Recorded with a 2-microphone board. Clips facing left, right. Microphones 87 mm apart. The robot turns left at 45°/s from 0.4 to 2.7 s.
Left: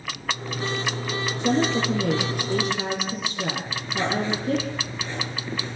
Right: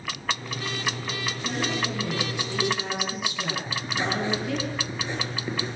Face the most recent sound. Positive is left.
turn(degrees=-20)  # may be behind; listen again after turning